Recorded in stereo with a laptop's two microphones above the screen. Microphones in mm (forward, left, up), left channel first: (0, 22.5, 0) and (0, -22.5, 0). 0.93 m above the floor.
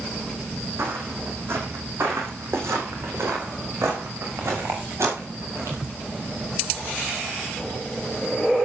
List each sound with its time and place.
0.8 s footsteps: 60° right (ahead or behind), 3.5 m; by 5.8 s 80° right, 6 m